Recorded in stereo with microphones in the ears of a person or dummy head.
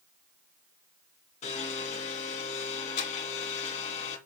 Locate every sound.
1.4 s a blender: 45° left (ahead or behind), 2.5 m